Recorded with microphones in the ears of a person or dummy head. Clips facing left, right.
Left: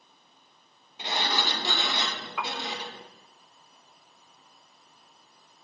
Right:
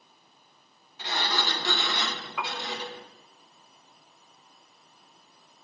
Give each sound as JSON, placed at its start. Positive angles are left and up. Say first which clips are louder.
{"t": 1.0, "sound": "a sliding door", "louder": "left 1 dB", "side_deg": 25, "distance_m": 1.9}
{"t": 2.4, "sound": "a piano", "louder": "left 1 dB", "side_deg": 0, "distance_m": 0.6}